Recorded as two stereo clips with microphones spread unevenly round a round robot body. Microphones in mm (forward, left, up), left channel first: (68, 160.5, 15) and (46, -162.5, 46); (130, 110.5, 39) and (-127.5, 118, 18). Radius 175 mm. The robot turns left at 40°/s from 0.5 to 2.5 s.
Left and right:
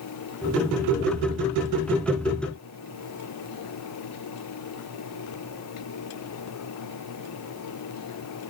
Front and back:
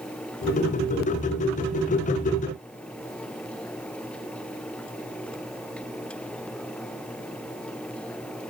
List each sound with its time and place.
Only background noise.